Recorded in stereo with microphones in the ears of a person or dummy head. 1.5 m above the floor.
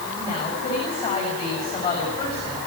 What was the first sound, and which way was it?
A woman speaking, 30° left (ahead or behind).